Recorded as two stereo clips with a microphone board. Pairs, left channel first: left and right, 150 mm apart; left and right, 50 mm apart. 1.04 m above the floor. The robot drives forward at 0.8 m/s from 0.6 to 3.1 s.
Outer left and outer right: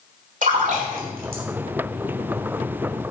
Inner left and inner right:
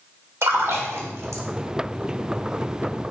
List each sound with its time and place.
0.4 s a splash: 60° right (ahead or behind), 2 m; by 1.4 s 75° right (ahead or behind), 2.0 m